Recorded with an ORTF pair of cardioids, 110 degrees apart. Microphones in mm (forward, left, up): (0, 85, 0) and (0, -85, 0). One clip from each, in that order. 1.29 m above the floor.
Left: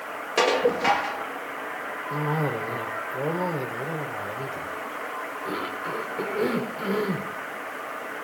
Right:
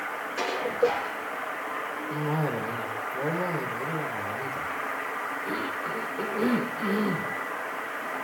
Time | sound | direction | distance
0.4 | dishes clattering | 65° left | 1.6 m
2.1 | a cough | 20° left | 3.5 m